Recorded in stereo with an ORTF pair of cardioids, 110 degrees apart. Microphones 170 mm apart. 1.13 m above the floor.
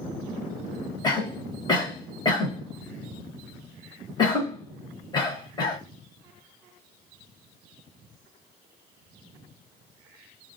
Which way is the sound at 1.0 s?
25° left.